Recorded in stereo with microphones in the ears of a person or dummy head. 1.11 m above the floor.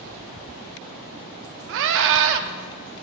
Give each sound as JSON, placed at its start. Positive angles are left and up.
{"t": 1.7, "sound": "a scream", "side_deg": -70, "distance_m": 0.6}